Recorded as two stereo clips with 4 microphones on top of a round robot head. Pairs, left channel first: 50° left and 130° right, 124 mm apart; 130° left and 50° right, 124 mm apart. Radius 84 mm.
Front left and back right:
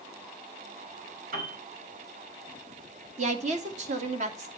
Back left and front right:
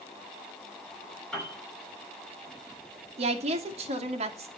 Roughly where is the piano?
Behind right.